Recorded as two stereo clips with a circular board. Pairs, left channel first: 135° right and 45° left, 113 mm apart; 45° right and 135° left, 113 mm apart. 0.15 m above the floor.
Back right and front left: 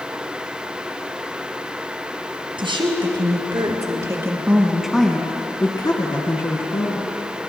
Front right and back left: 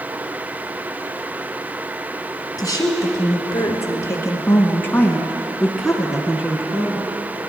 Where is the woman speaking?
10° left, 2.5 m; by 7.1 s 150° right, 2 m.